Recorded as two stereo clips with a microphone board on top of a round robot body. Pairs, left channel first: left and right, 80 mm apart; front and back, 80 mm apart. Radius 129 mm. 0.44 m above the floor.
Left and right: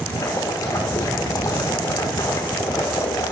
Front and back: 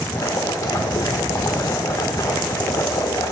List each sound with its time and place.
0.1 s boiling: 50° left, 1.2 m